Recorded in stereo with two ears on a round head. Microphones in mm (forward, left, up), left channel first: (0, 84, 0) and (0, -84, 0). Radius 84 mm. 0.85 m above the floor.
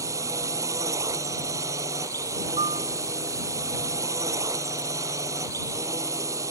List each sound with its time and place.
0.0 s a drone: 15° right (ahead or behind)
2.6 s a piano: 30° right (ahead or behind)